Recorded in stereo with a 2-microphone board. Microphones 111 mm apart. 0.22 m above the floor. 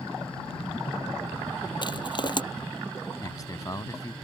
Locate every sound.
1.8 s crushing: 45° left (ahead or behind)
3.2 s a man speaking: 35° left (ahead or behind)